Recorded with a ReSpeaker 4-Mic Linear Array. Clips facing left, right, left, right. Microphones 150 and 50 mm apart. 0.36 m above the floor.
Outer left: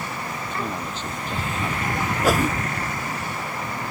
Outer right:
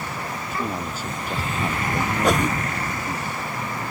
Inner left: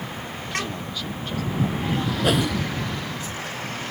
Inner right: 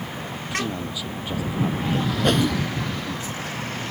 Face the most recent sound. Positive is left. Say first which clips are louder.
# outer left 1 dB, inner right 1 dB
turn(degrees=5)  # may be behind; listen again after turning